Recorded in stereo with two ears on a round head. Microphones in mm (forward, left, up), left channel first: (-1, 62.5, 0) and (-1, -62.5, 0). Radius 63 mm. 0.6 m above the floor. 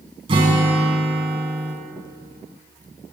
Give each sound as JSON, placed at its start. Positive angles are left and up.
{"t": 0.3, "sound": "a guitar", "side_deg": -40, "distance_m": 2.5}